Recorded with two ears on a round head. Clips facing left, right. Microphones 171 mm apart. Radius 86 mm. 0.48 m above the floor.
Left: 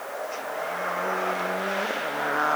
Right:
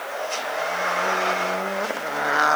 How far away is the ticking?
I don't hear ticking.